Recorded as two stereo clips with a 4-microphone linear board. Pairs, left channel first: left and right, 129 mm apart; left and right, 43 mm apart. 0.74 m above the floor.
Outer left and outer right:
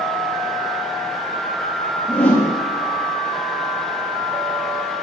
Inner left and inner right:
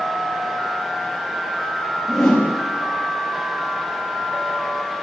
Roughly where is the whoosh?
Centre.